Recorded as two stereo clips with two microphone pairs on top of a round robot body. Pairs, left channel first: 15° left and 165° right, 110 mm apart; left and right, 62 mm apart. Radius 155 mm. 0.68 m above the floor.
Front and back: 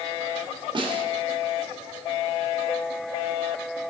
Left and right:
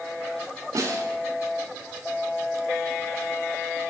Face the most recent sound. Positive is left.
turn(degrees=-125)